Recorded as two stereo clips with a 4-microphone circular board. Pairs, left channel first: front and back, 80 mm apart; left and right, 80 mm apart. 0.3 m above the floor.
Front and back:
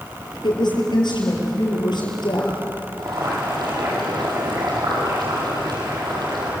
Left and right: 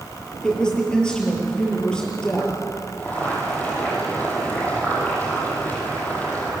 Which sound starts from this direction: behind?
Boiling, at 3.0 s.